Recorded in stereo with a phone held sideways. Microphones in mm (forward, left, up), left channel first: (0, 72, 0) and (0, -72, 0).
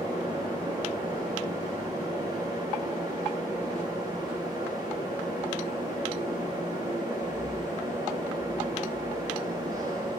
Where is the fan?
25° right (ahead or behind), 5.5 m.